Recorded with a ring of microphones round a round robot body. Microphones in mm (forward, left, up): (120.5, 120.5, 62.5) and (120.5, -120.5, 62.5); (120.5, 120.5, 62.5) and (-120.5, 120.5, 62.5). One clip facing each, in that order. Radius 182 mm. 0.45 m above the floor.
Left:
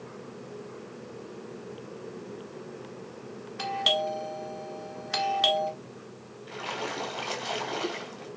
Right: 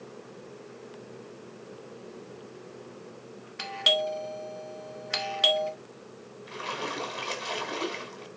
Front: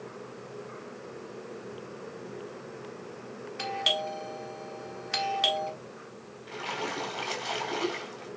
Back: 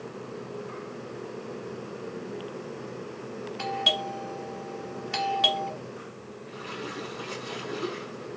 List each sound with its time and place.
3.6 s a doorbell: 60° right, 1.5 m
6.5 s a splash: 30° right, 4 m